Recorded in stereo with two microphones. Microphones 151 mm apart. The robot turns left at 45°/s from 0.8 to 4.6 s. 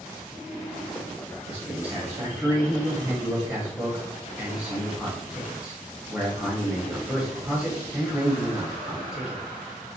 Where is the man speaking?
10° right (ahead or behind), 1.0 m; by 9.4 s 5° right (ahead or behind), 1.0 m.